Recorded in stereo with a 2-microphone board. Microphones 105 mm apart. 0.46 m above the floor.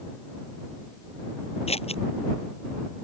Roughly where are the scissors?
Left.